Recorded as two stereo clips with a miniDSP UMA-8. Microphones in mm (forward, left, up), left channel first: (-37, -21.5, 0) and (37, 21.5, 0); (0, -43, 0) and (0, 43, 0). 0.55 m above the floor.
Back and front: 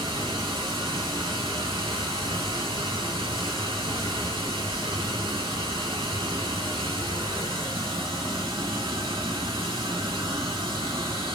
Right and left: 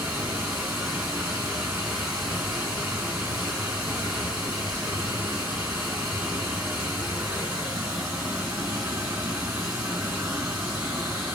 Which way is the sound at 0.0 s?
20° left.